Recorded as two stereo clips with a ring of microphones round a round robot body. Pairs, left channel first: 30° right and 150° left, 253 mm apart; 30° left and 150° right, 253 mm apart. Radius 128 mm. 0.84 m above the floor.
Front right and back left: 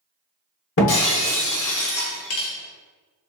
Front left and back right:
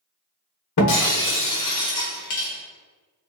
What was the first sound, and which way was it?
Breaking glass, 10° left.